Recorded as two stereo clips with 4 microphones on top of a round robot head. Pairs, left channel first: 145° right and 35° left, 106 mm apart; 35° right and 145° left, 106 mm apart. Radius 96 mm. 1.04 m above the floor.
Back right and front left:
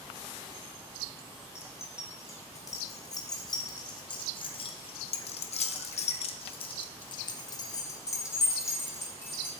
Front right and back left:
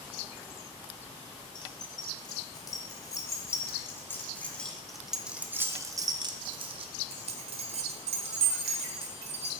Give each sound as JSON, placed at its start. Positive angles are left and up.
{"t": 1.6, "sound": "keys jangling", "azimuth_deg": -80, "distance_m": 2.5}